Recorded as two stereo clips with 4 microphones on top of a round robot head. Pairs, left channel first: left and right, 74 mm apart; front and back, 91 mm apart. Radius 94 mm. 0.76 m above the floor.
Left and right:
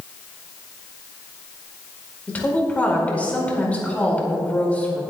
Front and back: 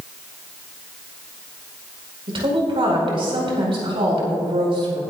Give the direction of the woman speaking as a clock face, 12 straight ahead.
7 o'clock.